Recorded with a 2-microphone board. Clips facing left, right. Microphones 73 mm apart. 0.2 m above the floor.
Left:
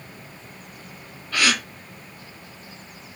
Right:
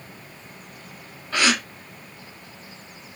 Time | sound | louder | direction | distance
1.3 | a gasp | right 1 dB | 25° right (ahead or behind) | 0.6 m